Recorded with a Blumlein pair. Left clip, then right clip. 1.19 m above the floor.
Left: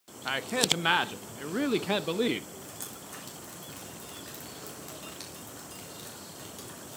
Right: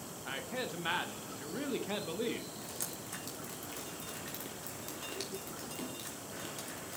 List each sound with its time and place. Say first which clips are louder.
0.2 s a man speaking: left 12 dB; 25° left, 0.9 m
2.6 s dripping: even; 10° right, 3.5 m